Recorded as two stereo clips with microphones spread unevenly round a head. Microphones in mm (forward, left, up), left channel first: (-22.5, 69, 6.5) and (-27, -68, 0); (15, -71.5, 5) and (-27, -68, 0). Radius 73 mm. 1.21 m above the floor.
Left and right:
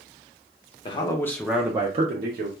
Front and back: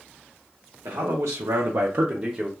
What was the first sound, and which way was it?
A man speaking, 145° left.